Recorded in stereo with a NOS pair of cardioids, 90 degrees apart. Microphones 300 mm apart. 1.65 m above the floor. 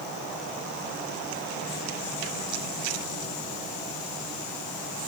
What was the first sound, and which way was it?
Only background noise.